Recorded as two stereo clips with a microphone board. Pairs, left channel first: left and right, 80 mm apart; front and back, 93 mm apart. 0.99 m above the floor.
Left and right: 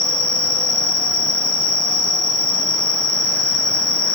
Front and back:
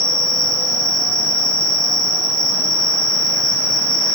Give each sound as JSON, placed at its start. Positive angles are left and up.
{"t": 0.0, "sound": "an insect", "azimuth_deg": -130, "distance_m": 1.1}